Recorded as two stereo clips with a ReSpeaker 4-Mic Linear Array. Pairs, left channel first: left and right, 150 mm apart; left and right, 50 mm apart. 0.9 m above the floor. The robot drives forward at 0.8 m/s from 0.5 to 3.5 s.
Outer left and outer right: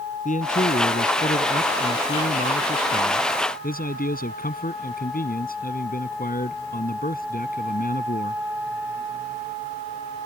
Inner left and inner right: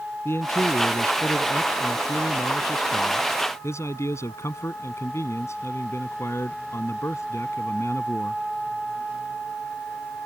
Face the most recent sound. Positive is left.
turn(degrees=75)  # may be behind; listen again after turning